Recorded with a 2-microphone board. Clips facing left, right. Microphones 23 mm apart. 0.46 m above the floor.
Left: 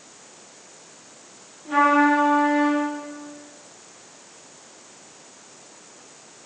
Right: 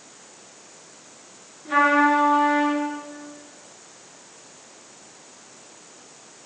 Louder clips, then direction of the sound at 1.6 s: Even; 75° right (ahead or behind).